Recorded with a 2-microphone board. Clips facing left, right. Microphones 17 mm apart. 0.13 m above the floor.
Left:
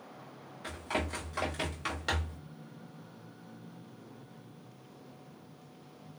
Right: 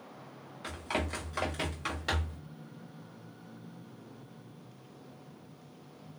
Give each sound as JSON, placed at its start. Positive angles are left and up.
{"t": 0.6, "sound": "running footsteps", "side_deg": -25, "distance_m": 1.9}